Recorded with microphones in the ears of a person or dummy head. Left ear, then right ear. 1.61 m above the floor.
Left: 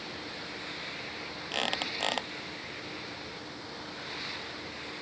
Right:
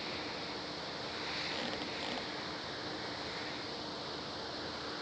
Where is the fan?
20° right (ahead or behind).